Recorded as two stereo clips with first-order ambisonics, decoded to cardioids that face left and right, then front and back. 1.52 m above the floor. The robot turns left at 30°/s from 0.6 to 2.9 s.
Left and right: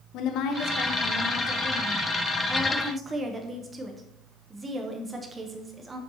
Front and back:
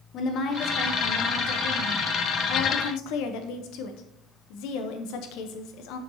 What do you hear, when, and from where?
0.1 s a woman speaking: 50° left, 0.9 m; by 6.0 s 20° right, 0.9 m